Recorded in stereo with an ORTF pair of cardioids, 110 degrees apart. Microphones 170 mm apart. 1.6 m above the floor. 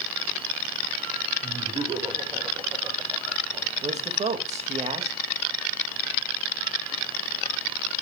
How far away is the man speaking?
About 1.9 m.